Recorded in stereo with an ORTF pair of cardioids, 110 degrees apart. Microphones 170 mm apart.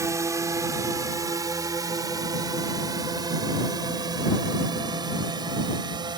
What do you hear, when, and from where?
0.0 s a drone: 15° right; by 6.2 s 25° right